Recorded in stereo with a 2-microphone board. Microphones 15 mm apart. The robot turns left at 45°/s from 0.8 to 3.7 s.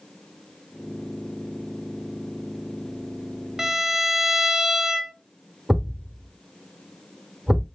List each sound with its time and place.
3.6 s a violin: 25° right (ahead or behind), 0.6 m; by 5.1 s 20° right (ahead or behind), 0.6 m
5.7 s a thud: 55° right (ahead or behind), 1.6 m